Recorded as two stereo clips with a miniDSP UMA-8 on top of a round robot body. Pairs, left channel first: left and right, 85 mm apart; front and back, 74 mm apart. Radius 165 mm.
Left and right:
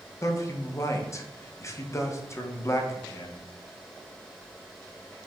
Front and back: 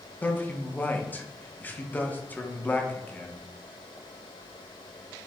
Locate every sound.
0.2 s a man speaking: 55° left, 0.8 m